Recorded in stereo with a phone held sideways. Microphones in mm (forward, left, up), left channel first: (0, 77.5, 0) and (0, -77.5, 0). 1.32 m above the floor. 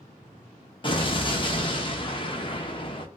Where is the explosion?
35° left (ahead or behind), 0.6 m.